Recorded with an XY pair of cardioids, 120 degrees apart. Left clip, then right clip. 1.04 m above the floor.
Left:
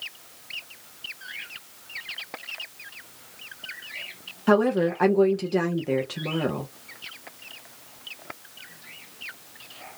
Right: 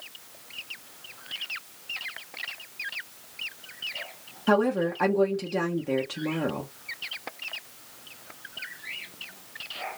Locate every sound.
4.5 s a woman speaking: 15° left, 0.7 m